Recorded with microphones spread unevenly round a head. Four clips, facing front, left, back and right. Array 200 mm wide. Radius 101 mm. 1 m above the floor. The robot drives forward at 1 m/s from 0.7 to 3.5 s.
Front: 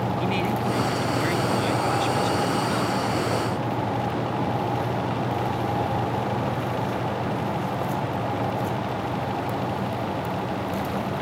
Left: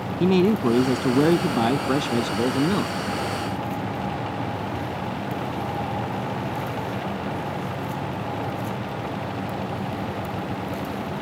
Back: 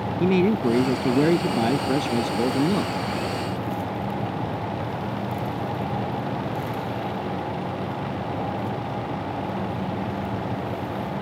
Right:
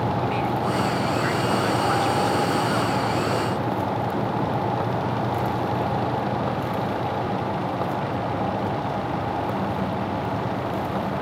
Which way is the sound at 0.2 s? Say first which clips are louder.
Left 5 dB, back 9 dB; 125° left.